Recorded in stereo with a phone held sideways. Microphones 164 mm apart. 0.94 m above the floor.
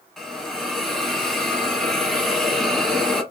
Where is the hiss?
Centre (ahead or behind), 1.0 m.